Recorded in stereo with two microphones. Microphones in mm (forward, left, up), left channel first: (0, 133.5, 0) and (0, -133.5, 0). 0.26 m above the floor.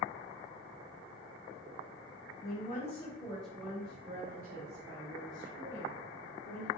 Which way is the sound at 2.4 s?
35° left (ahead or behind).